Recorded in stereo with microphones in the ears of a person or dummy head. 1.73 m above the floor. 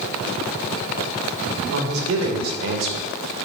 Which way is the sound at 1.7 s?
80° right.